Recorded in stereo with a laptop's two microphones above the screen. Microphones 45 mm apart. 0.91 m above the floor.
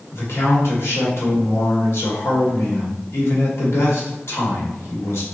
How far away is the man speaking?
About 1.8 m.